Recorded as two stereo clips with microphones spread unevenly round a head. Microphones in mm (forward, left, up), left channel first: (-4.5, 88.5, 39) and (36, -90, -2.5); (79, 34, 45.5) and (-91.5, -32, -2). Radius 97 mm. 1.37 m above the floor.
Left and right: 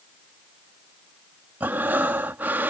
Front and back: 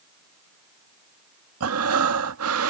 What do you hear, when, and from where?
1.6 s breathing: 165° right